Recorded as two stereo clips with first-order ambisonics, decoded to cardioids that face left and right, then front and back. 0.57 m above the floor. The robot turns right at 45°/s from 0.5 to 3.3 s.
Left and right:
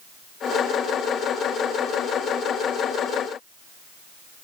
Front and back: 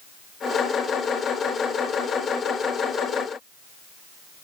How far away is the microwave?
No microwave in this recording.